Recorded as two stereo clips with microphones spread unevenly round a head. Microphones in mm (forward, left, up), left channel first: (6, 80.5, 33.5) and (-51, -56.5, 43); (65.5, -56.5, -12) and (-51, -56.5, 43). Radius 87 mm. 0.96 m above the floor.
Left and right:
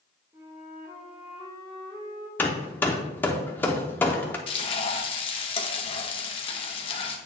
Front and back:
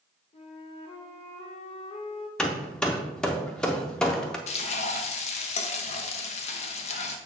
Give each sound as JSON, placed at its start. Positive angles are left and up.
{"t": 0.3, "sound": "a flute", "azimuth_deg": -40, "distance_m": 1.5}
{"t": 2.4, "sound": "hammering", "azimuth_deg": 140, "distance_m": 0.5}
{"t": 4.5, "sound": "frying", "azimuth_deg": 10, "distance_m": 0.8}